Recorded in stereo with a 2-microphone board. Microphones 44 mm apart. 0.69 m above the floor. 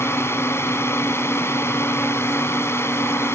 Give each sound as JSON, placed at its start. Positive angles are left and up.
{"t": 0.0, "sound": "a drone", "side_deg": 70}